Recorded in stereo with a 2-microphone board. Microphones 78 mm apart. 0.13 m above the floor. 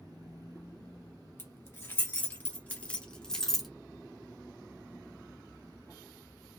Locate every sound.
1.4 s keys jangling: 25° left (ahead or behind), 1.9 m; by 3.7 s centre (ahead or behind), 1.0 m